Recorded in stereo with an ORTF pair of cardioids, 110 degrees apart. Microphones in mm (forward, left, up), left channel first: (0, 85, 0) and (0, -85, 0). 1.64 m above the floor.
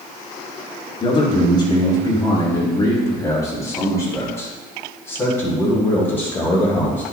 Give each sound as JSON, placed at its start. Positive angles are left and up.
{"t": 1.0, "sound": "a man speaking", "azimuth_deg": 30, "distance_m": 4.5}